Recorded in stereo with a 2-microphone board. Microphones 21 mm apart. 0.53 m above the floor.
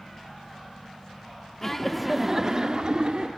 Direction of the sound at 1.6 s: 20° left (ahead or behind).